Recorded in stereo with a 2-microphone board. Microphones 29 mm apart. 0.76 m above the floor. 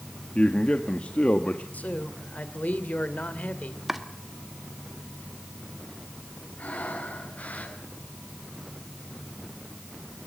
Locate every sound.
0.3 s a man speaking: 45° left (ahead or behind), 1.4 m
1.7 s a man speaking: 65° left (ahead or behind), 2.5 m
3.9 s chopping: 5° right (ahead or behind), 1.5 m
6.6 s breathing: 60° left (ahead or behind), 6.5 m